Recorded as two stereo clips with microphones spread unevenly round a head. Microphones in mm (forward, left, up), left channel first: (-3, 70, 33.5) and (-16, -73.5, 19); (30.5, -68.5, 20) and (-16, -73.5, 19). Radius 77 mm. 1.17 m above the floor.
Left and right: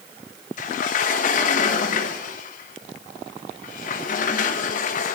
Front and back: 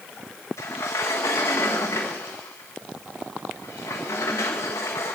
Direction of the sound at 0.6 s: 45° left.